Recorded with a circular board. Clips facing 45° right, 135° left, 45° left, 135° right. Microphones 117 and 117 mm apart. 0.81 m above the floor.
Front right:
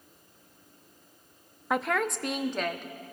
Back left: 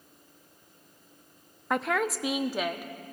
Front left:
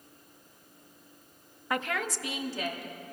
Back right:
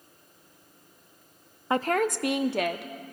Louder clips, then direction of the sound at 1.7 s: Even, back right 7 dB; 130° right.